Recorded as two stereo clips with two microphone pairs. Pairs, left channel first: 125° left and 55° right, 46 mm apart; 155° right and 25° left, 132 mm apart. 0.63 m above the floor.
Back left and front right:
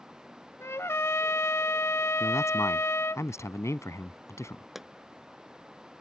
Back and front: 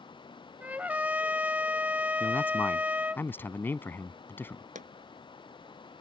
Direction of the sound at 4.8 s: 35° left.